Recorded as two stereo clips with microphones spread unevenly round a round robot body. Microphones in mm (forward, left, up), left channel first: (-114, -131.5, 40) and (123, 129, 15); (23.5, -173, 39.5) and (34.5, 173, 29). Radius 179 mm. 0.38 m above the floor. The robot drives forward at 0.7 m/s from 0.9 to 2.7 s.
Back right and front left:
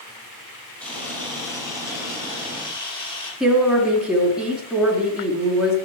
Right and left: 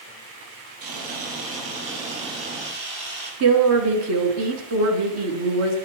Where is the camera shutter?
140° left, 5 m; by 3.3 s 150° left, 6 m.